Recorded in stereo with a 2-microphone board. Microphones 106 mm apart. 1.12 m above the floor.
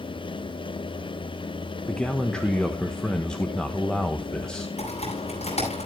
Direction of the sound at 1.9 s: 10° left (ahead or behind).